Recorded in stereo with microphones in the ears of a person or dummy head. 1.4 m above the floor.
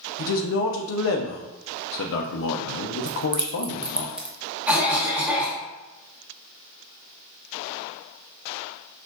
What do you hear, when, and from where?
0.2 s a man speaking: 65° left (ahead or behind), 0.6 m
3.1 s keys jangling: 5° right (ahead or behind), 0.8 m
4.7 s a cough: 5° right (ahead or behind), 1.3 m